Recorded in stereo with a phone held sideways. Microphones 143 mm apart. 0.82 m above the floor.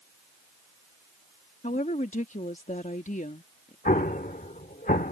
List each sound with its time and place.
1.6 s a woman speaking: 60° left (ahead or behind)
3.9 s an explosion: 80° left